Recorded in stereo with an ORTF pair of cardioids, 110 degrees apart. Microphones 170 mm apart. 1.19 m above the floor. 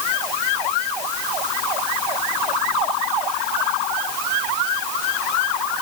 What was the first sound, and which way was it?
Only background noise.